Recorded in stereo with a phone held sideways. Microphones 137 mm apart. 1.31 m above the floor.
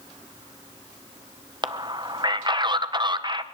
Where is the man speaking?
35° right (ahead or behind), 0.7 m.